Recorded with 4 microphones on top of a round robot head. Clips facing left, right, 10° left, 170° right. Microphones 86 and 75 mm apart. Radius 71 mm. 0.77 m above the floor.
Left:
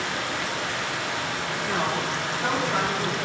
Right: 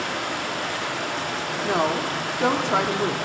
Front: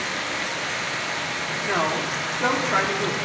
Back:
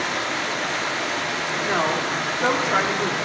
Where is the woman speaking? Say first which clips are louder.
Right 4 dB, back 1 dB; 85° right, 1.8 m.